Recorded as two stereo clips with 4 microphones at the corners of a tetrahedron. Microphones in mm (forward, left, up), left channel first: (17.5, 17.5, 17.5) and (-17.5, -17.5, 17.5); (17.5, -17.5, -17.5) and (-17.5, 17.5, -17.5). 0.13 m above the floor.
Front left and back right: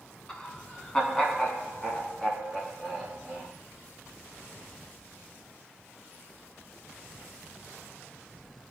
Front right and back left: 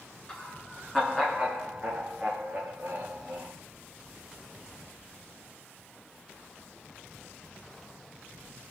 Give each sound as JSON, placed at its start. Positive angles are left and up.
{"t": 0.3, "sound": "laughter", "azimuth_deg": 0, "distance_m": 1.3}